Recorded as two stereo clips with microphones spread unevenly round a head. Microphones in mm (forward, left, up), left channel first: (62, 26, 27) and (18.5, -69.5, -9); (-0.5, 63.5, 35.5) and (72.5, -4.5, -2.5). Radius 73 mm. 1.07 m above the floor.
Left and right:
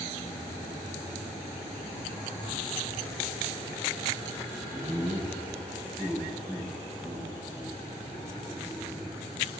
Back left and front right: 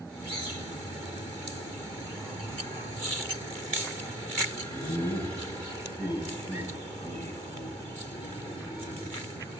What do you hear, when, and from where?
4.7 s laughter: 165° left, 5 m; by 9.5 s 150° left, 7.5 m